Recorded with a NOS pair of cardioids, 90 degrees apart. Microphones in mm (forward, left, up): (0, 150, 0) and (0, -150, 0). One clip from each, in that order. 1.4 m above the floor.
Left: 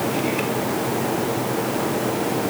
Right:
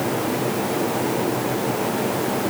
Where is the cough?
No cough in this recording.